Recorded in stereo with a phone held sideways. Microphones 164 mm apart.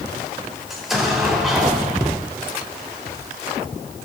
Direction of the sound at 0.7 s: Centre (ahead or behind).